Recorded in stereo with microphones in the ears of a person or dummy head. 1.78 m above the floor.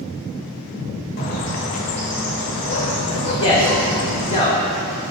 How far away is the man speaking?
About 1.9 m.